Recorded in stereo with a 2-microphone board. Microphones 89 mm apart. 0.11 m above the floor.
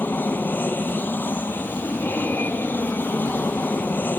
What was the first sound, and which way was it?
An aircraft, 20° left (ahead or behind).